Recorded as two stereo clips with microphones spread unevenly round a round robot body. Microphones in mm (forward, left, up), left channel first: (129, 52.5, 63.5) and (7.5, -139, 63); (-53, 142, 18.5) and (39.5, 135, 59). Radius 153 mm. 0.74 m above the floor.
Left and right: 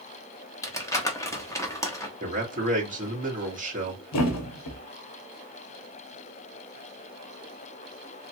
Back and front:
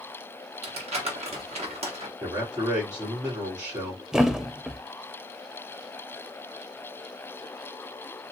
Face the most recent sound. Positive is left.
turn(degrees=75)